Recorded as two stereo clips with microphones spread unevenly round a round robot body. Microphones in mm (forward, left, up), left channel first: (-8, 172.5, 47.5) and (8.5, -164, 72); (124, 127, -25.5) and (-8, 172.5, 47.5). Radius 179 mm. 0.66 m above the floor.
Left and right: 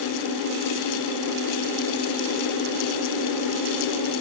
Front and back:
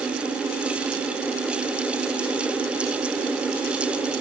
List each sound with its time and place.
Only background noise.